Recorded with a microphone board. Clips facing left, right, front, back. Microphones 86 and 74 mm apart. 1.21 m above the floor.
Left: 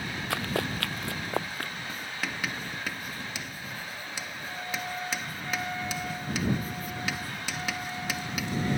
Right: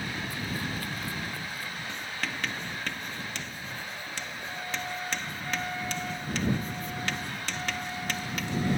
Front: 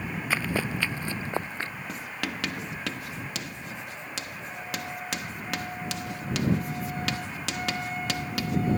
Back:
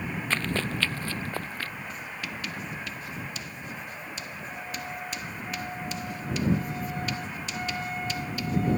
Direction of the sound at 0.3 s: 80° left.